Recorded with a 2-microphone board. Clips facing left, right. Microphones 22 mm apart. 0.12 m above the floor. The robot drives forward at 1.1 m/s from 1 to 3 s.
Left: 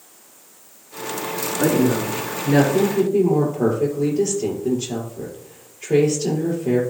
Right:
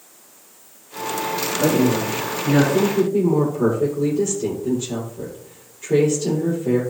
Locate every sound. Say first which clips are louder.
1.6 s a woman speaking: even; 55° left (ahead or behind), 5 m; by 6.8 s 40° left (ahead or behind), 6 m